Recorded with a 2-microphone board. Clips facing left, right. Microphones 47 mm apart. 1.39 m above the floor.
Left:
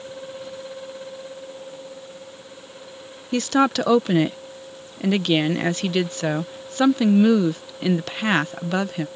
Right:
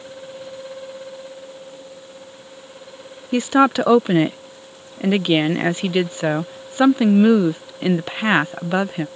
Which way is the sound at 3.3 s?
15° right (ahead or behind).